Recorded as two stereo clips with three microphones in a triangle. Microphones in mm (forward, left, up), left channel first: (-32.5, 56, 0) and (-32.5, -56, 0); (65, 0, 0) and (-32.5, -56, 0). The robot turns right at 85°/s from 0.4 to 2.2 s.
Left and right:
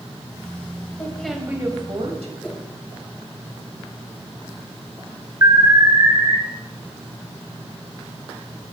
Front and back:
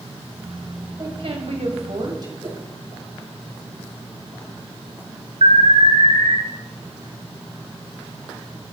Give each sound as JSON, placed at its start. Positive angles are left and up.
{"t": 1.0, "sound": "a woman speaking", "azimuth_deg": 155, "distance_m": 3.5}
{"t": 2.4, "sound": "a whoosh", "azimuth_deg": 170, "distance_m": 3.0}
{"t": 5.4, "sound": "an alarm", "azimuth_deg": -150, "distance_m": 2.0}